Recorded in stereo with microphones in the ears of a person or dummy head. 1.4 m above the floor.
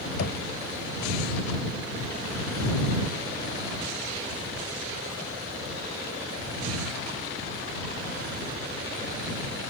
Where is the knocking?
65° left (ahead or behind).